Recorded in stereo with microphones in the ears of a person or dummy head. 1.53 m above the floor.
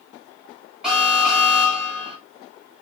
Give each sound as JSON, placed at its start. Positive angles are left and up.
{"t": 0.8, "sound": "an alarm", "side_deg": 0, "distance_m": 1.3}